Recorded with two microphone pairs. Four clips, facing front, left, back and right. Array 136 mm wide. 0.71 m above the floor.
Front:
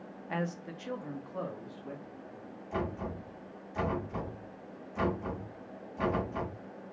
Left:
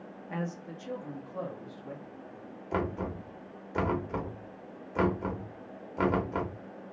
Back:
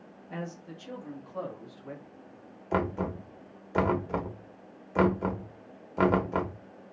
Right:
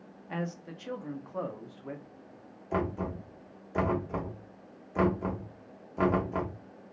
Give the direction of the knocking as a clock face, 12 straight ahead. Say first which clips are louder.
Right 1 dB, back 6 dB; 6 o'clock.